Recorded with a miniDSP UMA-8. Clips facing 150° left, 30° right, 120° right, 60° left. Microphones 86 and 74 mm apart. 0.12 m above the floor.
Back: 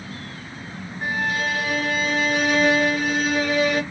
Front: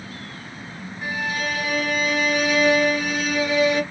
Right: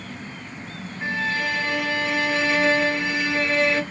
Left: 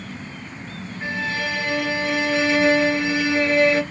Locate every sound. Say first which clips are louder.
1.0 s a violin: back 2 dB, right 1 dB; 150° left, 1.4 m